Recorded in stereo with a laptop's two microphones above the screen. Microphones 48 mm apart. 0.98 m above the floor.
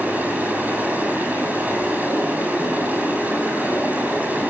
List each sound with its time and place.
0.0 s running water: 35° right (ahead or behind), 7 m